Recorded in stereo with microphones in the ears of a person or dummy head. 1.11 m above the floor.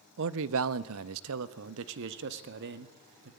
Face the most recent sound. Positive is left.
turn(degrees=-55)  # may be behind; listen again after turning